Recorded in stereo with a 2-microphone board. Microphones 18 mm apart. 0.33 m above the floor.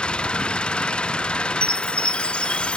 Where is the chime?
80° left.